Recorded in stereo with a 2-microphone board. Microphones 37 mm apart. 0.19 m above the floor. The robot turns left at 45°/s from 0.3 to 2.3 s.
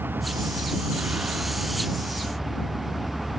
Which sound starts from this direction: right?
A vehicle, at 0.0 s.